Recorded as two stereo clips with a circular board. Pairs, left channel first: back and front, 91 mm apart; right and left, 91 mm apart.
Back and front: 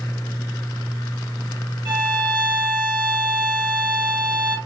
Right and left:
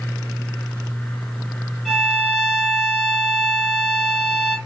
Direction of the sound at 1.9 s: Straight ahead.